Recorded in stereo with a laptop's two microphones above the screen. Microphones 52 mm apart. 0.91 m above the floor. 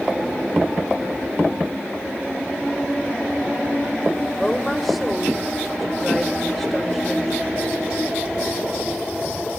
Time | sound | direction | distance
4.4 | a woman speaking | centre (ahead or behind) | 3.5 m